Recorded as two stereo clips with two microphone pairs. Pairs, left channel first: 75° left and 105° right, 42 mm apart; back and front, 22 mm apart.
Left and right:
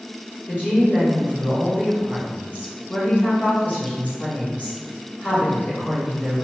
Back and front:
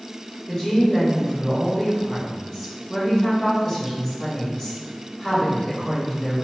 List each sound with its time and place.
0.5 s a woman speaking: 105° left, 1.9 m